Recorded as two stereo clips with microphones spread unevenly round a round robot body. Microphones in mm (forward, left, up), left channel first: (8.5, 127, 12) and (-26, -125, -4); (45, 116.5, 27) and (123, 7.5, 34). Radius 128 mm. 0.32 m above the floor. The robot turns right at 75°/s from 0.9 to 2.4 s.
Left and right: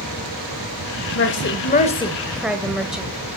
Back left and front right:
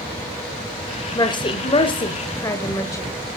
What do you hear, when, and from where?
1.1 s a woman speaking: 85° left, 1.2 m; by 3.1 s straight behind, 1.2 m